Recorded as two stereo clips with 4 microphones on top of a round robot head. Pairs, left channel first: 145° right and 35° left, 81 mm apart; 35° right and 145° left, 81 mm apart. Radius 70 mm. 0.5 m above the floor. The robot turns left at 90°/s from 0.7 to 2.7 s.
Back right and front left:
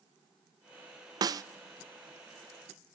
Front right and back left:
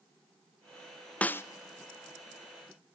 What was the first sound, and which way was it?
A snare drum, 35° left.